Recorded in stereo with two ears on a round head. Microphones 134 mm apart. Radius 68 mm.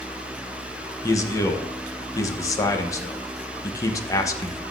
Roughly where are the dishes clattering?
No dishes clattering in this recording.